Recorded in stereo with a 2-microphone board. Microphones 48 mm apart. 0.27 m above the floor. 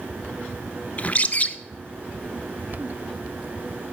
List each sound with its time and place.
1.0 s a bird: 35° left (ahead or behind), 0.6 m